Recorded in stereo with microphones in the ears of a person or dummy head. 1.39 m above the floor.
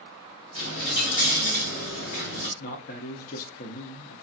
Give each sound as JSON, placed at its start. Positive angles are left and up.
{"t": 0.6, "sound": "a dropped coin", "side_deg": 55, "distance_m": 1.3}
{"t": 2.6, "sound": "a man speaking", "side_deg": 50, "distance_m": 0.6}